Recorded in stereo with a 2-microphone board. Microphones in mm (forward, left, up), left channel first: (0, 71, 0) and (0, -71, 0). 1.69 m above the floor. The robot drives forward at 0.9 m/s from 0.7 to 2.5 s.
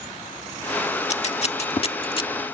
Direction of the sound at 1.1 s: 50° left (ahead or behind).